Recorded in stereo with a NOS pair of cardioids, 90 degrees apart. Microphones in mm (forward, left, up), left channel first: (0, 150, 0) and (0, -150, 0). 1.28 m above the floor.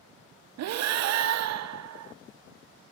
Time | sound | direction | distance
0.6 | breathing | 65° right | 0.6 m